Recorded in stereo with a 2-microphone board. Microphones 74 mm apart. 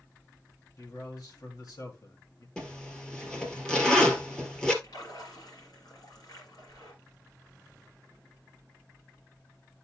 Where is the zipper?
10° left (ahead or behind), 1.7 m.